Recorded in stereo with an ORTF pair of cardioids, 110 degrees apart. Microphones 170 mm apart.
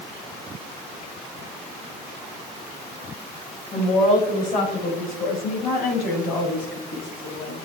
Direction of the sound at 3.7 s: 45° left.